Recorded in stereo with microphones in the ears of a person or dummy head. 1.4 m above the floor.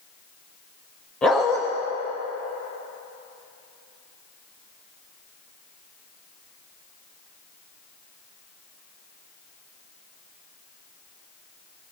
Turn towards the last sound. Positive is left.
turn(degrees=10)  # may be behind; listen again after turning